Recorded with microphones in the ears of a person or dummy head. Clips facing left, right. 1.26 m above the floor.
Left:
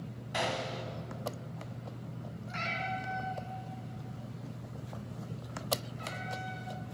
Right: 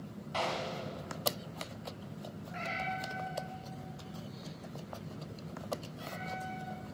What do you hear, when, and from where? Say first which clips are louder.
0.3 s a gunshot: left 1 dB; 20° left (ahead or behind), 1.9 m
2.5 s a cat meowing: left 1 dB; 80° left, 5 m